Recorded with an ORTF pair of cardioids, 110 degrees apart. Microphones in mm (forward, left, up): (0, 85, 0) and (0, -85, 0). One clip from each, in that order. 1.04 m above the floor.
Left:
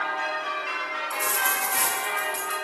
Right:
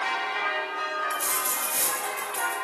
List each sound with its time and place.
1.1 s a dropped coin: 5° left, 1.5 m